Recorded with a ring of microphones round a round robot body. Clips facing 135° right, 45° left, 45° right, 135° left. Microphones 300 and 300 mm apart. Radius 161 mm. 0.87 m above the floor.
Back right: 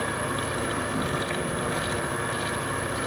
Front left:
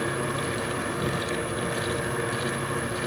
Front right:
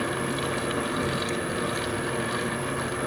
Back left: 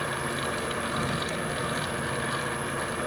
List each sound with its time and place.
0.0 s an insect: 105° right, 2.5 m